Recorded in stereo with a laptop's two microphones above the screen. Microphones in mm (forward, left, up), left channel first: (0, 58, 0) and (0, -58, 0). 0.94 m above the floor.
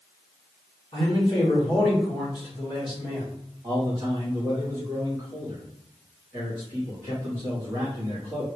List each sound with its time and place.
0.9 s a man speaking: 40° left (ahead or behind), 1.4 m
3.6 s a man speaking: 20° right (ahead or behind), 1.5 m